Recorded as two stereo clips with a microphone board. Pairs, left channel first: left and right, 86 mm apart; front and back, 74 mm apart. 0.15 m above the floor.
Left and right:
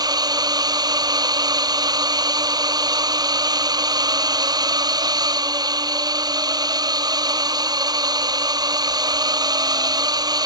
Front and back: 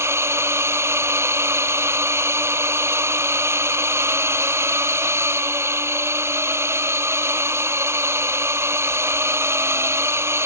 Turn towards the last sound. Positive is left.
turn(degrees=-125)